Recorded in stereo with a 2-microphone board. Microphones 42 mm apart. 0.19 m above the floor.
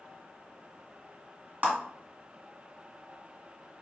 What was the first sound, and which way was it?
A clap, 45° right (ahead or behind).